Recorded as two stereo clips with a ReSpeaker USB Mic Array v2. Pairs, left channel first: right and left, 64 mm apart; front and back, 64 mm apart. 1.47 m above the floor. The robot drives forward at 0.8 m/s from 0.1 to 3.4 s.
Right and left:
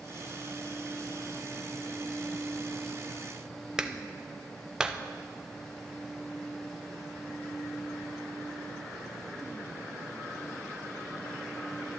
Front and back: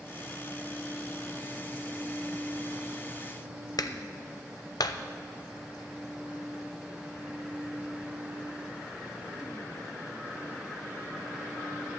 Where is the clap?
10° left, 0.7 m.